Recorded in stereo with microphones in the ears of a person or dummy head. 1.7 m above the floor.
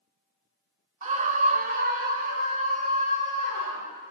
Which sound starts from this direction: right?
A scream, at 1.0 s.